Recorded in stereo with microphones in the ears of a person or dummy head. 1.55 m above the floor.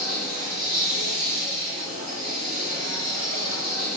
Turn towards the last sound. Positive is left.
turn(degrees=-50)  # may be behind; listen again after turning